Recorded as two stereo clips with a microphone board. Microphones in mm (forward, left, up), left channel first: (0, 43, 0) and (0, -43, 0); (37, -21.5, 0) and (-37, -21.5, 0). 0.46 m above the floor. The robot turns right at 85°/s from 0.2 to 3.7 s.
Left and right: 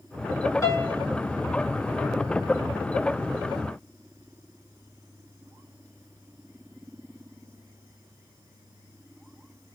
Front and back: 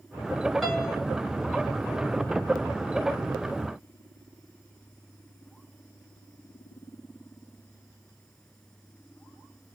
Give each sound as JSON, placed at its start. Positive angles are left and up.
{"t": 0.6, "sound": "a piano", "azimuth_deg": 95, "distance_m": 1.4}